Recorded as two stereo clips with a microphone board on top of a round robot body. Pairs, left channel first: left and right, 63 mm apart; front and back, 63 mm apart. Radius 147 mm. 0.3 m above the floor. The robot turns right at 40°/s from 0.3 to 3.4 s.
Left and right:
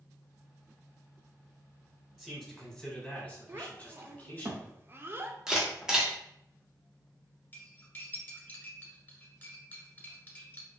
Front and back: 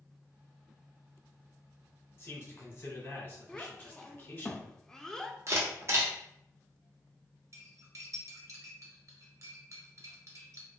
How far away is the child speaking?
About 0.6 m.